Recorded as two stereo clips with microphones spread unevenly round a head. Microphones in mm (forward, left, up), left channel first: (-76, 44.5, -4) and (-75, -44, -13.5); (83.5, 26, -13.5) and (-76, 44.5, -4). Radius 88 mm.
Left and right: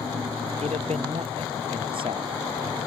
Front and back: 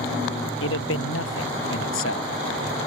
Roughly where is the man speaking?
Ahead right.